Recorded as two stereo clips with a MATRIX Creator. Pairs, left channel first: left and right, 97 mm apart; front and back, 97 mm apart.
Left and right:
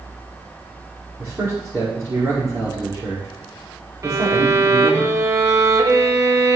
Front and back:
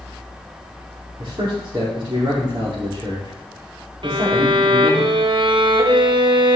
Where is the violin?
150° right, 1.0 m.